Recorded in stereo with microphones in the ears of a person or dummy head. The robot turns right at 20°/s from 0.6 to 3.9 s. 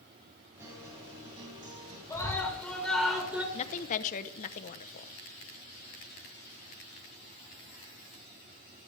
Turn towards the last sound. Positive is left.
turn(degrees=45)  # may be behind; listen again after turning